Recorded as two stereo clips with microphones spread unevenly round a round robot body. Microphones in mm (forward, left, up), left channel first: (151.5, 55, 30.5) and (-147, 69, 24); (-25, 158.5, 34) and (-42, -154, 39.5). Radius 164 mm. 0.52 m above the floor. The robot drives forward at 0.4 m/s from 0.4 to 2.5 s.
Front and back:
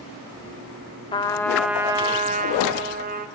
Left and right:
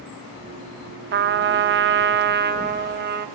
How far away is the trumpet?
About 0.7 m.